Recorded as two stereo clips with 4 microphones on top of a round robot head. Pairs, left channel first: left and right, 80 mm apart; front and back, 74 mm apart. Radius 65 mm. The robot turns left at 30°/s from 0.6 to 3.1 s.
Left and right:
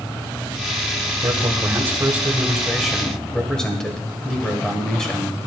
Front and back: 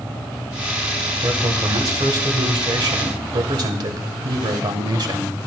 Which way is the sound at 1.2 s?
135° right.